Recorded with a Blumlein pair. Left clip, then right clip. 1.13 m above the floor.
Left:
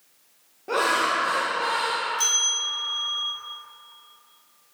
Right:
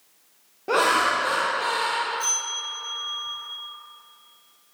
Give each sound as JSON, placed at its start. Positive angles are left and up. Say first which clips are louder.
{"t": 0.7, "sound": "laughter", "louder": "right 2 dB", "azimuth_deg": -15, "distance_m": 1.0}
{"t": 2.2, "sound": "a bell", "louder": "left 4 dB", "azimuth_deg": 35, "distance_m": 2.5}